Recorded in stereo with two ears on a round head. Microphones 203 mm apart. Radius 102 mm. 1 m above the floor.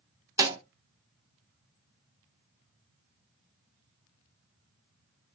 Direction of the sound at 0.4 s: 15° right (ahead or behind).